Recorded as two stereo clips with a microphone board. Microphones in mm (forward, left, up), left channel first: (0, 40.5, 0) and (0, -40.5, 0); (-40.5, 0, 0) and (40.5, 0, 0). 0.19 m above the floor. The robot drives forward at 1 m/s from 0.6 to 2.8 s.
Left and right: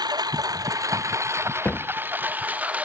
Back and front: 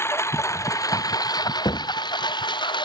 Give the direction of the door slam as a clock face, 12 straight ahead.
7 o'clock.